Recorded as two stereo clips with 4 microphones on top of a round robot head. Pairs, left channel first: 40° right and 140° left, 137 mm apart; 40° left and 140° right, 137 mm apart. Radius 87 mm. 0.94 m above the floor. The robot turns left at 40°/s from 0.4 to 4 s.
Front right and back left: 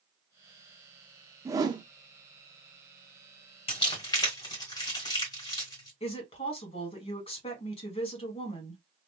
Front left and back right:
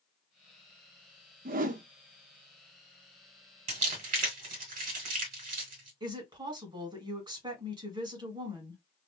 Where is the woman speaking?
85° right, 1.8 m.